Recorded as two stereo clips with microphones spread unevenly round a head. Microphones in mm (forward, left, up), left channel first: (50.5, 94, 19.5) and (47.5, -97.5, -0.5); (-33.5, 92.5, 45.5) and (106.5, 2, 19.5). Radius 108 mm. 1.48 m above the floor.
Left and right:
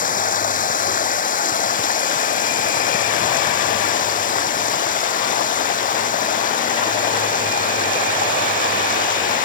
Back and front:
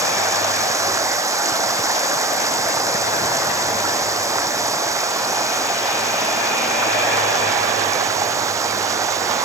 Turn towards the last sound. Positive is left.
turn(degrees=40)